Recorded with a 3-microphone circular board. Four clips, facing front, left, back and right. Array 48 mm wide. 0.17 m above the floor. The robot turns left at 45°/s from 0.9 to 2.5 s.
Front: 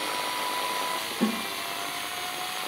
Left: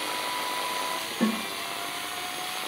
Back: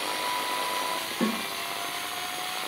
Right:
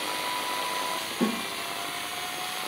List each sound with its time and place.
1.2 s a snare drum: 165° right, 1.6 m; by 1.4 s straight behind, 1.6 m